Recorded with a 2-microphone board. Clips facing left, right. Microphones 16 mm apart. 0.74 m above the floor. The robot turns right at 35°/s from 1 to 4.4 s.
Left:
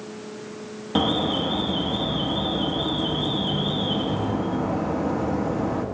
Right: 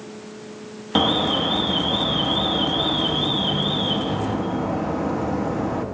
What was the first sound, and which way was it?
An alarm, 135° right.